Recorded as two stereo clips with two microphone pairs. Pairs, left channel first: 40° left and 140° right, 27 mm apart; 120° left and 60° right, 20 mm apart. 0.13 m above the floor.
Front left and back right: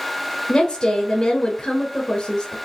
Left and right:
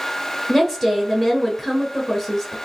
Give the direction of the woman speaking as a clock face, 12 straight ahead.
12 o'clock.